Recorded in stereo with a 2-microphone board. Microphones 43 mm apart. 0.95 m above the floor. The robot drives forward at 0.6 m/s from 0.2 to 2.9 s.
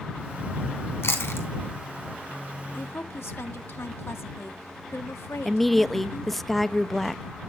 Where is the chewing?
80° left, 3 m; by 1.5 s 75° left (ahead or behind), 3 m.